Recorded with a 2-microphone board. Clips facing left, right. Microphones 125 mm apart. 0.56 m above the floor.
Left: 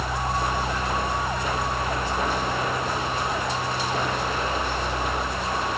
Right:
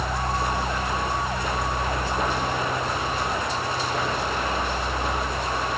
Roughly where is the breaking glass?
I don't hear breaking glass.